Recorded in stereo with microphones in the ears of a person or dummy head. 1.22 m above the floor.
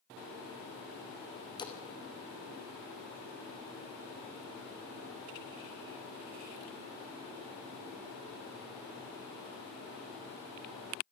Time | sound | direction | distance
1.6 | a splash | 25° left (ahead or behind) | 2 m